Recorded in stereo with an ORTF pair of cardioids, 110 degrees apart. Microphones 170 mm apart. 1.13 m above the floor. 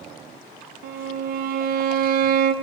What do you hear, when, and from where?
0.8 s a violin: 60° right, 0.6 m